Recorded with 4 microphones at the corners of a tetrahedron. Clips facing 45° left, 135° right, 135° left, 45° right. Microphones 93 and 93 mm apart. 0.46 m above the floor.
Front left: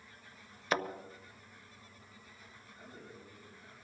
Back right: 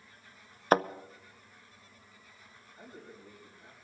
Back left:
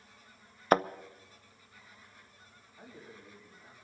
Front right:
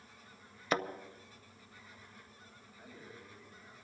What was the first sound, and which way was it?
A thud, straight behind.